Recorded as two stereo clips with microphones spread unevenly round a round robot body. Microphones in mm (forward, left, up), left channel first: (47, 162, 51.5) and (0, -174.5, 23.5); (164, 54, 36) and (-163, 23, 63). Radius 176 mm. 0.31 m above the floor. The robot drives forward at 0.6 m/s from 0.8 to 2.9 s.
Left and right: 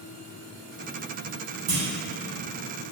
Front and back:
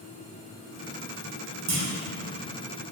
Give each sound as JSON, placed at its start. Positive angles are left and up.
{"t": 1.7, "sound": "a clunk", "azimuth_deg": -130, "distance_m": 1.5}